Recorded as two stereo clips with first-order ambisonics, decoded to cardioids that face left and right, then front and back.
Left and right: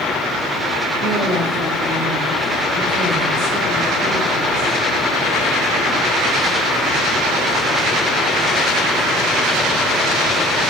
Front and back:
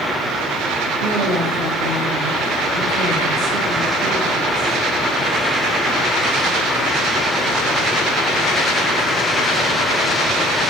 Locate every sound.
1.0 s a woman speaking: 145° right, 4 m